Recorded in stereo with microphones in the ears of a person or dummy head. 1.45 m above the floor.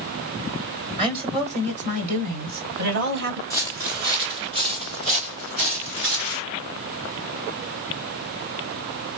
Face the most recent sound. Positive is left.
turn(degrees=-45)  # may be behind; listen again after turning